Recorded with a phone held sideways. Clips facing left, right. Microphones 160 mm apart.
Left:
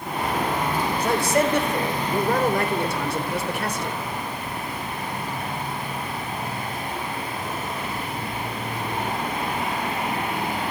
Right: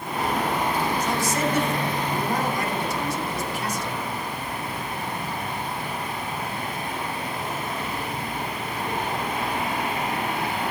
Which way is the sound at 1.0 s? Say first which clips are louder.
Left 4 dB; 60° left (ahead or behind).